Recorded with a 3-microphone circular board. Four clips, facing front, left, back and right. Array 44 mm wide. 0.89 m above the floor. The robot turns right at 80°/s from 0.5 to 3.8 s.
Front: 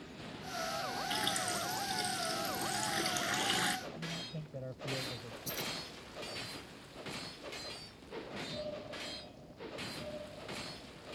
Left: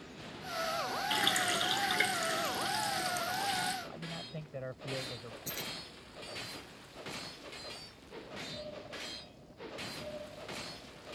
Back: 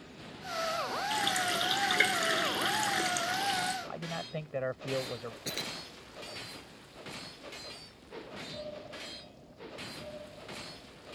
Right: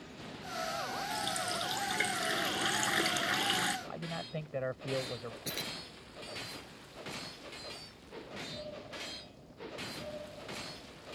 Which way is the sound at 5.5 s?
155° right.